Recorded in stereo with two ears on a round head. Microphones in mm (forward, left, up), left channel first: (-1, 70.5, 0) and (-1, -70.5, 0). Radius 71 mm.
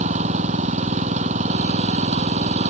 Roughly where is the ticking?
No ticking in this recording.